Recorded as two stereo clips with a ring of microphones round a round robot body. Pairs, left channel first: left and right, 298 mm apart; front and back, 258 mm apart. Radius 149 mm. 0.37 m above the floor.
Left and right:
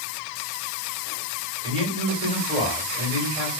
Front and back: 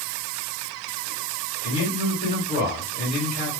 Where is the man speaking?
30° right, 1.9 m.